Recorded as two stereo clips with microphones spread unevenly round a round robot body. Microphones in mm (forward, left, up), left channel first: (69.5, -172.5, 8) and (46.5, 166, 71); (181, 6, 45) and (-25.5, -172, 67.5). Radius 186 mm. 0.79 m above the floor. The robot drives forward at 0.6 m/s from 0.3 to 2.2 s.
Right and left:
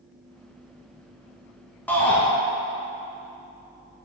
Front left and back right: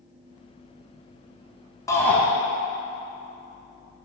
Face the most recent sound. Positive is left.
turn(degrees=-35)